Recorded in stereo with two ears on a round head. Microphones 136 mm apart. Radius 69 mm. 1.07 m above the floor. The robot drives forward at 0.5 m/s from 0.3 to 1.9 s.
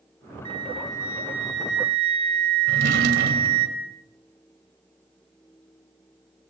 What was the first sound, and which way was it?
A flute, 35° right (ahead or behind).